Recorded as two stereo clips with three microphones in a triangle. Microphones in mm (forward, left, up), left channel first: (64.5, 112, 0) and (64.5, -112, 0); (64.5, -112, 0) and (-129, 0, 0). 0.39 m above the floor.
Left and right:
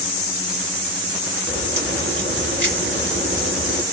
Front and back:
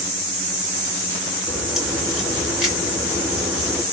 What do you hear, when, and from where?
1.5 s a crack: 120° right, 3 m